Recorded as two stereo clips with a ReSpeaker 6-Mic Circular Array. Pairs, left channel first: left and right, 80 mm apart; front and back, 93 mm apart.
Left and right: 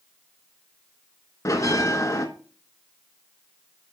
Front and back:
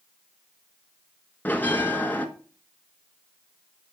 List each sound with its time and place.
1.4 s a bell: 65° left, 0.7 m